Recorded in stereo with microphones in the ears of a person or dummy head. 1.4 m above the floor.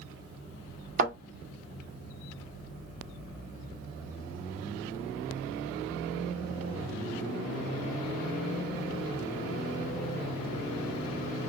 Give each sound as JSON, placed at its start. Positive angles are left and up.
{"t": 1.0, "sound": "a thud", "side_deg": -50, "distance_m": 1.6}